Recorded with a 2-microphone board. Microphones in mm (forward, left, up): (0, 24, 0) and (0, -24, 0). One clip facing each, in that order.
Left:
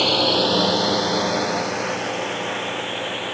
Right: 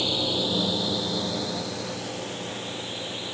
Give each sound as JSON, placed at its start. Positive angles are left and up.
{"t": 0.0, "sound": "a drone", "side_deg": 70}